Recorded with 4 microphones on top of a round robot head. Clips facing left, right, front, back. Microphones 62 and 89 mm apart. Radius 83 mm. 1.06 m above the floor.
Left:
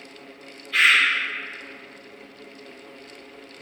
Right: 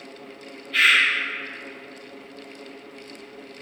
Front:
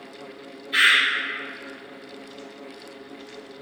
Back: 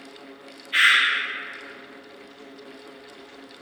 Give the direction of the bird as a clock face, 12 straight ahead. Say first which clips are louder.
Even, even; 10 o'clock.